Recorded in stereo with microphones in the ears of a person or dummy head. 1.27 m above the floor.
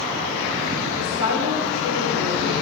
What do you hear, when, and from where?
1.0 s a woman speaking: 75° left (ahead or behind), 4 m; by 2.5 s 80° left, 5 m